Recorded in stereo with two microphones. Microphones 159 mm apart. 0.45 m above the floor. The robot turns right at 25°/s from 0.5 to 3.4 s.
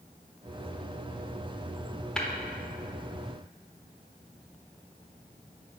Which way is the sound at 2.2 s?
5° left (ahead or behind).